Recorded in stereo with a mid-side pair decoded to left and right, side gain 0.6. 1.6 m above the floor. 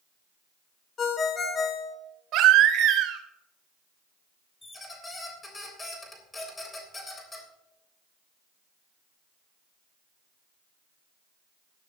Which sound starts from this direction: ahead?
A squeak, at 4.6 s.